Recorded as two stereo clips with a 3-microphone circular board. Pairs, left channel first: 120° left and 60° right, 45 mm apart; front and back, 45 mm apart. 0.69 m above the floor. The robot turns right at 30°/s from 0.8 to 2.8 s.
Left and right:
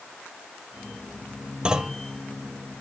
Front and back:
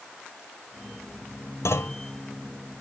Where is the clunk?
10° left, 1.1 m; by 2.0 s 20° left, 1.1 m.